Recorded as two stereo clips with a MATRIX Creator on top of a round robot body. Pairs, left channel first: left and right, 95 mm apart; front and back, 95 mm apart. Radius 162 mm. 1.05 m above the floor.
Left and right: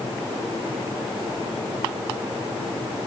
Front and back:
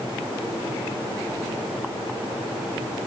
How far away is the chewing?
No chewing in this recording.